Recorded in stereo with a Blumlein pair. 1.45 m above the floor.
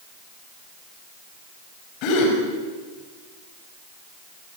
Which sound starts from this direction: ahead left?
A gasp, at 2.0 s.